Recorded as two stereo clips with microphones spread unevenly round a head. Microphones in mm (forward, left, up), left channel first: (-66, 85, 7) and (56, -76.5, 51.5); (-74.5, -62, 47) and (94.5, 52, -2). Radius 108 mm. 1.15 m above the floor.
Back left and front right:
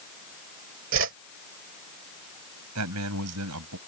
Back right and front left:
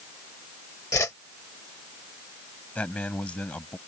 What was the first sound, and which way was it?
A whoosh, 75° right.